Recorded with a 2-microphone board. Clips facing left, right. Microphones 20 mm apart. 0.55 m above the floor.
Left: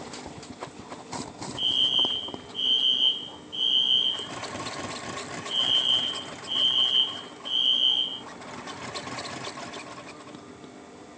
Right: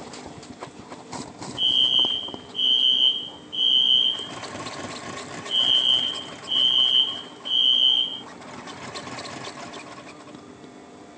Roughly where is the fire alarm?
Centre.